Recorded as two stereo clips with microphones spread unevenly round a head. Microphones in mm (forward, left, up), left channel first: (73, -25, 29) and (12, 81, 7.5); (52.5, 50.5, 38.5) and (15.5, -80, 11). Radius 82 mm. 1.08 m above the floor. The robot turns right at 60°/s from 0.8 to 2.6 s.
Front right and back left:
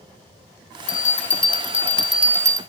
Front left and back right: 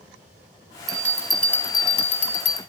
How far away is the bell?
About 1.3 m.